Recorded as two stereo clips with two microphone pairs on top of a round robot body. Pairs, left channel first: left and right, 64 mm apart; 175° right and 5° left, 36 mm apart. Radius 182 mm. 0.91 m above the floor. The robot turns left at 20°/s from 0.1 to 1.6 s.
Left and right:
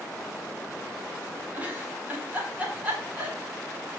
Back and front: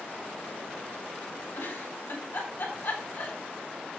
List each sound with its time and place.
1.5 s a giggle: 155° right, 4.5 m